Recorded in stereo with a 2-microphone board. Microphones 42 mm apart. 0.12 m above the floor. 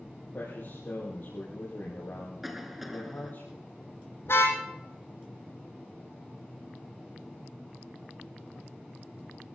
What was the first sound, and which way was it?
A man speaking, 50° left (ahead or behind).